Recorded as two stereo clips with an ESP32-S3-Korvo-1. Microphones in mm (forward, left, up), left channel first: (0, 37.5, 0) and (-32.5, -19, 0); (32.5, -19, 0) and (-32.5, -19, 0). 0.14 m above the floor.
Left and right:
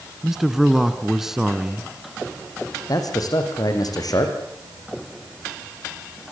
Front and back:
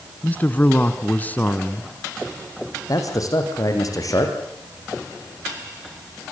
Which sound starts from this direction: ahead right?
A man speaking, at 0.2 s.